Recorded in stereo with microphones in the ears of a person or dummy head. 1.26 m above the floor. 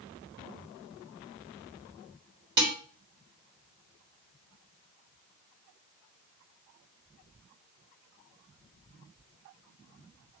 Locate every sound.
2.6 s dishes clattering: 60° right (ahead or behind), 3.5 m